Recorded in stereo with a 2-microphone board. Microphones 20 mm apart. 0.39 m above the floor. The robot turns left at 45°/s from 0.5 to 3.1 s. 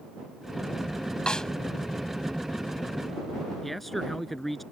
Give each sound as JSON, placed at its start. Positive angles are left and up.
{"t": 1.3, "sound": "a snare drum", "side_deg": 50}
{"t": 3.6, "sound": "a man speaking", "side_deg": 10}